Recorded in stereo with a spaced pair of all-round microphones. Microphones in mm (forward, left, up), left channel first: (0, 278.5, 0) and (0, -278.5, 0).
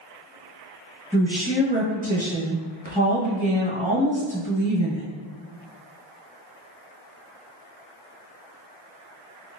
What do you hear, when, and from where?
1.1 s a woman speaking: 15° right (ahead or behind), 1.1 m